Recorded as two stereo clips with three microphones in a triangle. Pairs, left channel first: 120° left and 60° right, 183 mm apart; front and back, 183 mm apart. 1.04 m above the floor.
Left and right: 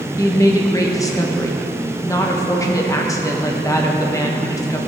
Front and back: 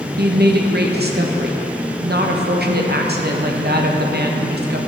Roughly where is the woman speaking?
Behind.